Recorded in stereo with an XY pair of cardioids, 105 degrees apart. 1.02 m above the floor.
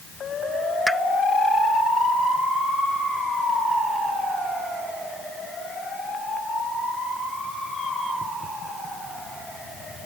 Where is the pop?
5° right.